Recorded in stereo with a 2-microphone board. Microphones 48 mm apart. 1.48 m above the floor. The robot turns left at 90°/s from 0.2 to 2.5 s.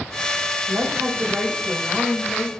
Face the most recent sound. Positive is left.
turn(degrees=110)